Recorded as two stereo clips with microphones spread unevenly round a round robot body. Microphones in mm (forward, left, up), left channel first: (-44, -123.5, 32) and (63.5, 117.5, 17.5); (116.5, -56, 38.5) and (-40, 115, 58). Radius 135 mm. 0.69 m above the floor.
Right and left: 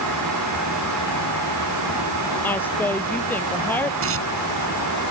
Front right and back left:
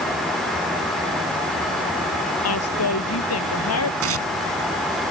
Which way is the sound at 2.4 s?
30° right.